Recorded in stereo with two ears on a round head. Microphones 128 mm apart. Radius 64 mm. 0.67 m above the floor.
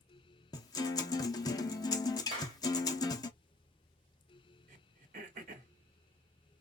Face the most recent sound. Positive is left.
turn(degrees=-60)  # may be behind; listen again after turning